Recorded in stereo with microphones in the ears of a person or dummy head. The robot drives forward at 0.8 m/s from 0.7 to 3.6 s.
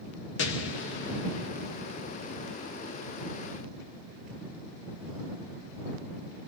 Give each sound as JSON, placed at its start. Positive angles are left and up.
{"t": 0.4, "sound": "an explosion", "side_deg": 80, "distance_m": 2.0}